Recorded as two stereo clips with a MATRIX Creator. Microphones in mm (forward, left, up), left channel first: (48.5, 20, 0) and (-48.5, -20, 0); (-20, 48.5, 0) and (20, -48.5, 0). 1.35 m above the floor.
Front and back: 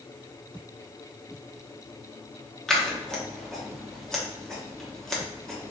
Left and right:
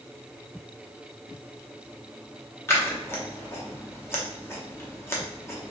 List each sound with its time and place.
2.7 s scissors: 100° left, 0.8 m